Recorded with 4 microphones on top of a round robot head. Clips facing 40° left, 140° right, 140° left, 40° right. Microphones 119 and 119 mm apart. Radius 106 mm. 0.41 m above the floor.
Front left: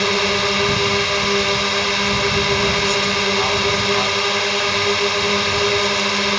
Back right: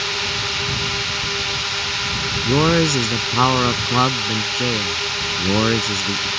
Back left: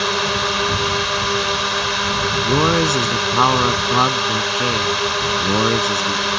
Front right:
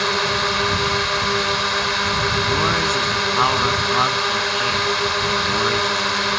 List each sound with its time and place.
0.0 s a drone: 55° left
2.5 s a man speaking: 165° right